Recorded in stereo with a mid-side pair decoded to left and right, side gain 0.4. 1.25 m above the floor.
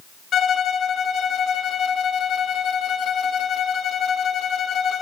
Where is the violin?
60° left, 0.7 m.